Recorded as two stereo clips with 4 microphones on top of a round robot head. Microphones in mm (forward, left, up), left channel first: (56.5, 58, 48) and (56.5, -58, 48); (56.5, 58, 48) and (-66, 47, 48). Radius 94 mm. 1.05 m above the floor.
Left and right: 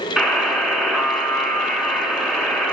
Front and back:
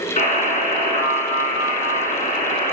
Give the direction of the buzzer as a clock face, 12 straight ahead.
12 o'clock.